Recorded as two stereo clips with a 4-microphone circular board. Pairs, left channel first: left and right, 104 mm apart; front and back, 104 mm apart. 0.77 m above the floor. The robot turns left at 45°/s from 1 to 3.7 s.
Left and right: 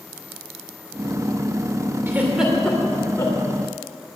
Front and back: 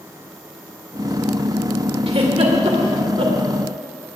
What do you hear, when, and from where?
2.1 s a giggle: 155° right, 2.5 m; by 3.4 s 145° left, 2.5 m